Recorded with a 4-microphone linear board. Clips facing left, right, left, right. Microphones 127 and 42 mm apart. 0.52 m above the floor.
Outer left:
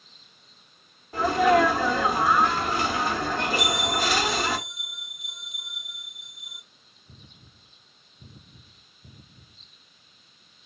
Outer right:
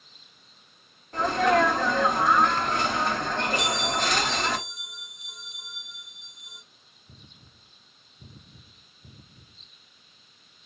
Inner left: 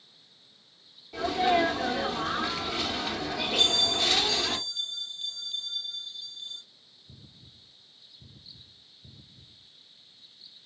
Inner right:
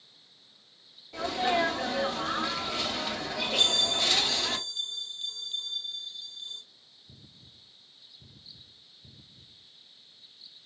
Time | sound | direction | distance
1.1 | a sneeze | 5° left (ahead or behind) | 1.0 m
3.6 | a bell | 5° left (ahead or behind) | 0.7 m